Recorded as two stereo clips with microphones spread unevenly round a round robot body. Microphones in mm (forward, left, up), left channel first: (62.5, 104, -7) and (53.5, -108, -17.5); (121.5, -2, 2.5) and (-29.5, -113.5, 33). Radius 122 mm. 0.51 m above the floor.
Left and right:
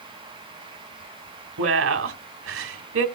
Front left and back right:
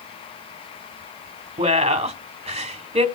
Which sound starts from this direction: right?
A woman speaking, at 1.6 s.